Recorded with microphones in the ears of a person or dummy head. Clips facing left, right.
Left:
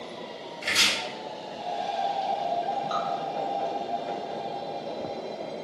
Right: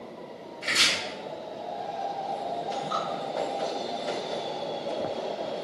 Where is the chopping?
25° left (ahead or behind), 1.9 m.